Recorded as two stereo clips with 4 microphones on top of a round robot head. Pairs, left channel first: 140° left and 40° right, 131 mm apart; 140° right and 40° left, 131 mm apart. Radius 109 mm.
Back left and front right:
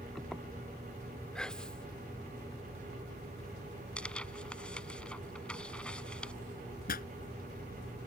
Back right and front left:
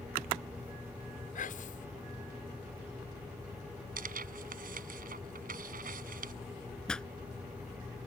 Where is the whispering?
140° right.